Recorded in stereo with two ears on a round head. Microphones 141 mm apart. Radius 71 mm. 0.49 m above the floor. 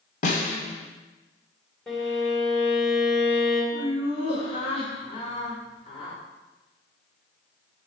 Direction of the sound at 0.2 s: 50° left (ahead or behind).